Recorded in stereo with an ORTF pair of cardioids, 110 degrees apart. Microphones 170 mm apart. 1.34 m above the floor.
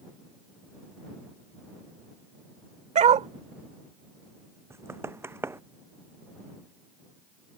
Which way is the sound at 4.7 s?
15° right.